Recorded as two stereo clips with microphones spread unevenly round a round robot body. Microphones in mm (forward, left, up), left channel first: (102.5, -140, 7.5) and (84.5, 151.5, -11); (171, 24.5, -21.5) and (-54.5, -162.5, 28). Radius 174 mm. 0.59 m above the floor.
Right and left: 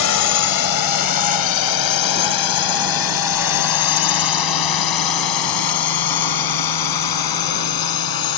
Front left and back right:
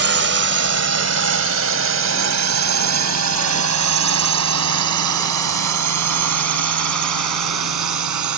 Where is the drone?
100° right; by 8.4 s 120° right.